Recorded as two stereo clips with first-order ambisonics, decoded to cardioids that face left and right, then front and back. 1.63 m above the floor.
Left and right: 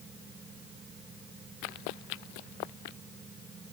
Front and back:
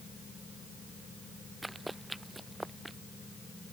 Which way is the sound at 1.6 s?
95° left.